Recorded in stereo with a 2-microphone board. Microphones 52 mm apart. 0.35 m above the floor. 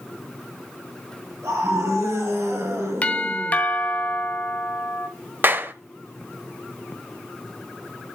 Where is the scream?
75° right (ahead or behind), 6.5 m; by 3.6 s 70° right (ahead or behind), 6 m.